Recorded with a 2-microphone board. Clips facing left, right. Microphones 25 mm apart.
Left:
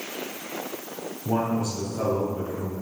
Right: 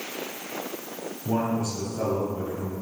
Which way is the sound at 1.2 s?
10° left (ahead or behind).